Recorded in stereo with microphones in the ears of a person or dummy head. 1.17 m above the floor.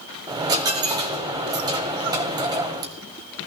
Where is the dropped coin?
20° right (ahead or behind), 1.2 m.